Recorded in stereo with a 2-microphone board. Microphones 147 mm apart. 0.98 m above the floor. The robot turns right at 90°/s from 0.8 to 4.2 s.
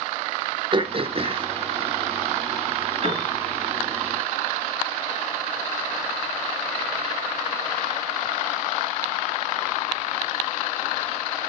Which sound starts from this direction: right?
A piano, at 3.0 s.